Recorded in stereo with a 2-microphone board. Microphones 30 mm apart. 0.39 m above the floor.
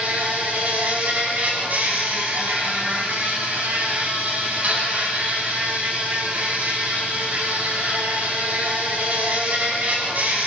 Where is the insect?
65° right (ahead or behind), 3.5 m.